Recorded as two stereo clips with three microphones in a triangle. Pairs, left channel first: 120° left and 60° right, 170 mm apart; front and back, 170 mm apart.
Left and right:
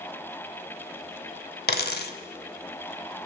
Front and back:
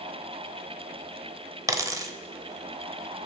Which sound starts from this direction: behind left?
A dropped coin, at 1.7 s.